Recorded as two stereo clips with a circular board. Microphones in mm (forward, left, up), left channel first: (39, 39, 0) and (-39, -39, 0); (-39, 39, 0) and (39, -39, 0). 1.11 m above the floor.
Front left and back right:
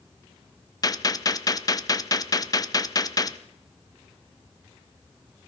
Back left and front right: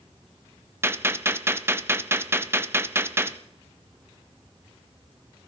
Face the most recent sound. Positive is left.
turn(degrees=10)